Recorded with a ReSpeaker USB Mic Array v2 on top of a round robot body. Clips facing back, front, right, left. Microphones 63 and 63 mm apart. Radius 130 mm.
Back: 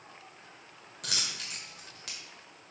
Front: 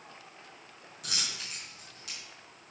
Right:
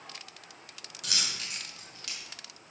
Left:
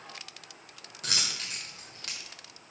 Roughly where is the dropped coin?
Behind left.